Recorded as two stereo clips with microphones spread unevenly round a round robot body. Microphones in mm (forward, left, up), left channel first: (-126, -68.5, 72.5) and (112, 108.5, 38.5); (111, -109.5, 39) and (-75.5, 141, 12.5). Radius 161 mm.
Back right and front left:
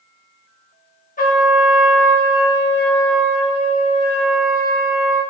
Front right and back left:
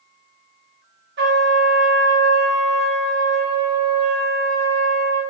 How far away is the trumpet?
About 1.2 m.